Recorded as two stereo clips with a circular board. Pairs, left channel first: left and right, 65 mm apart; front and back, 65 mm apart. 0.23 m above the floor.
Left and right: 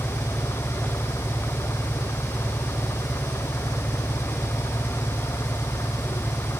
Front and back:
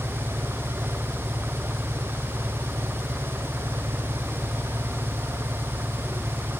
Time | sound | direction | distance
0.0 | an engine running | 115° left | ?